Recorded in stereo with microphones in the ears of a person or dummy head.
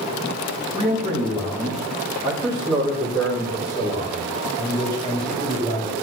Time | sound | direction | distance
0.7 | a man speaking | 10° right (ahead or behind) | 2.5 m